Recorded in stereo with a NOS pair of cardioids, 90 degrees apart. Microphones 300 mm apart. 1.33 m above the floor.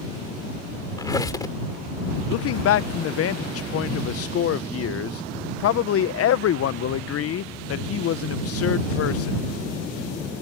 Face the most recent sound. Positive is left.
turn(degrees=50)